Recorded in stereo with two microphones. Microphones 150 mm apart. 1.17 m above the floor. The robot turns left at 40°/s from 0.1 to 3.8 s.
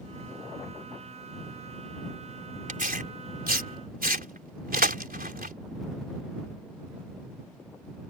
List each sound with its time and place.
2.7 s tearing paper: 60° right (ahead or behind); by 5.5 s 75° right (ahead or behind)